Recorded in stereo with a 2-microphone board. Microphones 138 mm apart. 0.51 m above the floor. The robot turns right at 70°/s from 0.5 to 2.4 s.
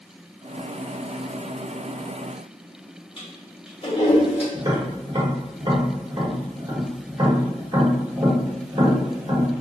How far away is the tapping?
About 1.3 m.